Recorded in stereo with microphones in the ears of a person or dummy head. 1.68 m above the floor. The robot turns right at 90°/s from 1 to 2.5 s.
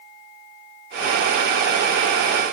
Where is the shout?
I don't hear a shout.